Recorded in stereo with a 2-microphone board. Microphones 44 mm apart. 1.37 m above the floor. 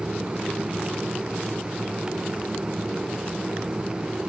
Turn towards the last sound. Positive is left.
No sound to turn to.